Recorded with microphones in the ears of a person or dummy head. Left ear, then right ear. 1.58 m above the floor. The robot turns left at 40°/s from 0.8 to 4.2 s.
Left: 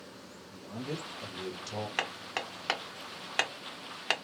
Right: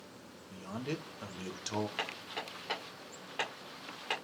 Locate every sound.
0.5 s a man speaking: 65° right, 1.0 m; by 1.9 s 110° right, 1.0 m
2.0 s hammering: 30° left (ahead or behind), 0.9 m; by 4.1 s 55° left (ahead or behind), 0.9 m